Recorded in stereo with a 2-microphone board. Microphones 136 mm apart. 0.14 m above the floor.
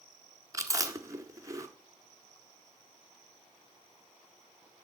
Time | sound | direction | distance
0.5 | chewing | 25° right (ahead or behind) | 1.5 m